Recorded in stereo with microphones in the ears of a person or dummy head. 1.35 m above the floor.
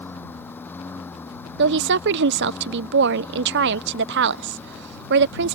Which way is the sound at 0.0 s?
15° left (ahead or behind).